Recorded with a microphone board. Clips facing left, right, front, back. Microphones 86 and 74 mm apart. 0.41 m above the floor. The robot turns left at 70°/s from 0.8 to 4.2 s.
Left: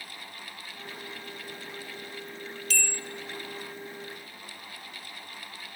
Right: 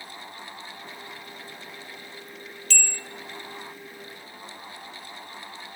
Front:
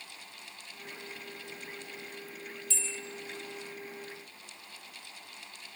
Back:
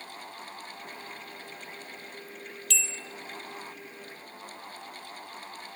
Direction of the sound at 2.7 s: Straight behind.